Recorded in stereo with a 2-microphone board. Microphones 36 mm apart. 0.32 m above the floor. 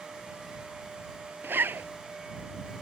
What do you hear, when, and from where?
1.4 s a zipper: 80° right